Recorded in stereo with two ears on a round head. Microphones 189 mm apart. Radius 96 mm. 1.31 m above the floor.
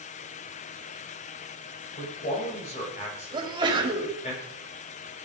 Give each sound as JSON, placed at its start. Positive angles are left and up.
{"t": 2.0, "sound": "a man speaking", "side_deg": 35, "distance_m": 6.0}
{"t": 3.3, "sound": "a sneeze", "side_deg": -25, "distance_m": 3.5}